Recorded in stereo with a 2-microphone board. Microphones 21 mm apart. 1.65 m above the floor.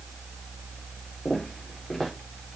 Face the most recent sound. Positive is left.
turn(degrees=25)  # may be behind; listen again after turning